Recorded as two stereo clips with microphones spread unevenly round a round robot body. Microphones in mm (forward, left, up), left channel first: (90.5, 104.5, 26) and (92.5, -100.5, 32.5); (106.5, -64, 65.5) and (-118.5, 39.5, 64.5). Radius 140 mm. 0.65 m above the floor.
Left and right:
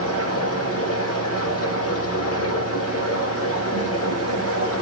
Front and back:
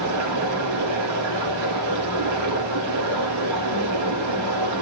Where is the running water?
135° left, 5 m.